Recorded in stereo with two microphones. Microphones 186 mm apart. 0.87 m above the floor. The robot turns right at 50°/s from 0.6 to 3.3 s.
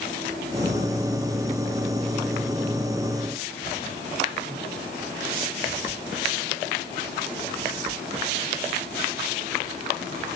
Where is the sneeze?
No sneeze in this recording.